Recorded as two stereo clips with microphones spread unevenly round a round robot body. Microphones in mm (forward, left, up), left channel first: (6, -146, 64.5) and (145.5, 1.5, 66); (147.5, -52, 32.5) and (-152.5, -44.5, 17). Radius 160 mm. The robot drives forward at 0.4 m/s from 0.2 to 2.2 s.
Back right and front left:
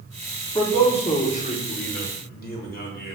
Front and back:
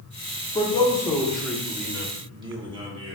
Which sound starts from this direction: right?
A man speaking, at 0.6 s.